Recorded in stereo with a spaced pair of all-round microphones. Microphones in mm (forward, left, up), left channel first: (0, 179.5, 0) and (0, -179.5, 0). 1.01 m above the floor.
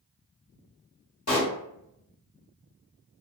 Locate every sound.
1.3 s a pop: 45° left (ahead or behind), 1.2 m